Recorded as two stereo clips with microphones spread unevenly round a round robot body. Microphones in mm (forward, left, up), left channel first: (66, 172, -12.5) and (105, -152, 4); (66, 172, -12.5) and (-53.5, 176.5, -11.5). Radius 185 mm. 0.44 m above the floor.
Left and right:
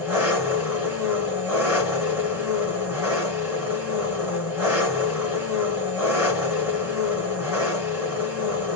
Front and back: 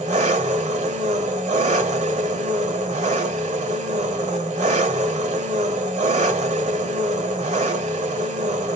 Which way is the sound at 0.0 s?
170° right.